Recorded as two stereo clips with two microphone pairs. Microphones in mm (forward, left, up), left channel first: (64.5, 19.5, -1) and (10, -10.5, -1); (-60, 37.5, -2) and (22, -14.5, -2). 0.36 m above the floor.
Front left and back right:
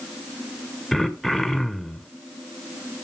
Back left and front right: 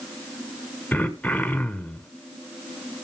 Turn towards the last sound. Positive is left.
turn(degrees=110)